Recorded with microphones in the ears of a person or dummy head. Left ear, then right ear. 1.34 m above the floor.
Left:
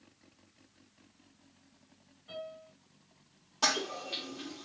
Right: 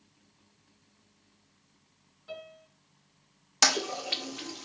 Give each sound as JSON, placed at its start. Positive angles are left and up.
{"t": 2.3, "sound": "a piano", "side_deg": -45, "distance_m": 2.0}
{"t": 3.6, "sound": "a toilet flushing", "side_deg": -65, "distance_m": 0.6}